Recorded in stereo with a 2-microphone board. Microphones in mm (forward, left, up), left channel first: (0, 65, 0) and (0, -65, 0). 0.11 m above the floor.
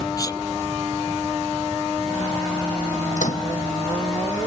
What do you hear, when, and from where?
0.2 s a sneeze: 30° left (ahead or behind)
3.2 s a microwave: 75° left (ahead or behind)